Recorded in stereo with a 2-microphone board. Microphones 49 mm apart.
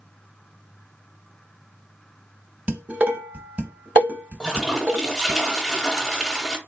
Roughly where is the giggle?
I don't hear a giggle.